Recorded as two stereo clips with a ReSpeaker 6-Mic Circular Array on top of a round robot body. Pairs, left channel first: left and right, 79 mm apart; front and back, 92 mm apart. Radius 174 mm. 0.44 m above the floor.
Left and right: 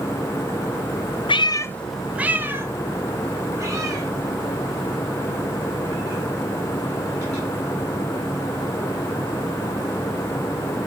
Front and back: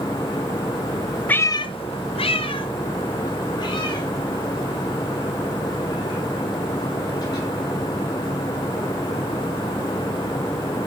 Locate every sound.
1.3 s a cat meowing: 75° left, 0.6 m; by 7.5 s 45° right, 7 m